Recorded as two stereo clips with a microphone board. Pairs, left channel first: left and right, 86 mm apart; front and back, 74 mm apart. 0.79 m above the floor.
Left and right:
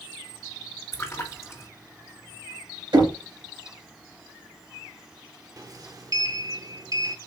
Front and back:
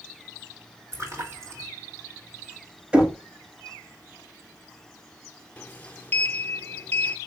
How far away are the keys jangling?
I don't hear keys jangling.